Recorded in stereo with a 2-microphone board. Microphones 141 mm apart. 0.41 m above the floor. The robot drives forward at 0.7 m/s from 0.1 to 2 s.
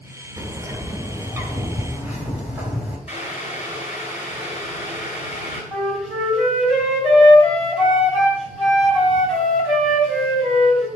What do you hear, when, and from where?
0.4 s a bird: 20° right (ahead or behind), 1.0 m; by 3.0 s 10° right (ahead or behind), 1.9 m
3.1 s boiling: 10° right (ahead or behind), 3.5 m
5.7 s a flute: centre (ahead or behind), 2.5 m